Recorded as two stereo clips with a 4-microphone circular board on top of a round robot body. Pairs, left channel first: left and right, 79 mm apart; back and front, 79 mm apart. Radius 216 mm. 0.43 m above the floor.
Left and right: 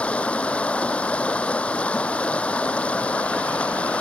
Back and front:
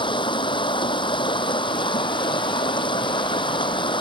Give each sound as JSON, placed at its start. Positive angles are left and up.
{"t": 0.0, "sound": "running water", "azimuth_deg": 165}